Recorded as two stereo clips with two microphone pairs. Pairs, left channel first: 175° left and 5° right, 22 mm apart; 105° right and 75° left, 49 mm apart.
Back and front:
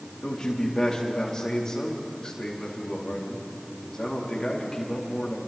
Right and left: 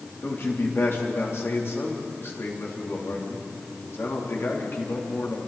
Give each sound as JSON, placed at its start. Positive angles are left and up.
{"t": 0.2, "sound": "a man speaking", "azimuth_deg": -130, "distance_m": 4.0}